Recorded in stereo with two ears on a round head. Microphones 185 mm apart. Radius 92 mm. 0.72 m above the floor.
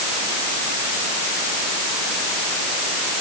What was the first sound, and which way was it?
Only background noise.